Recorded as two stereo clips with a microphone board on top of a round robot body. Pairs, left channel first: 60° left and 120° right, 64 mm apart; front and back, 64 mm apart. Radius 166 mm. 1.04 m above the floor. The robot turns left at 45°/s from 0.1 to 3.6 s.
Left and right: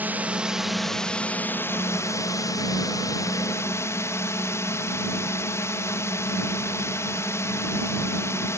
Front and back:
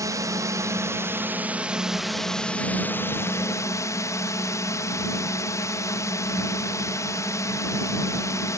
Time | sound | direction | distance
0.0 | a drone | straight behind | ?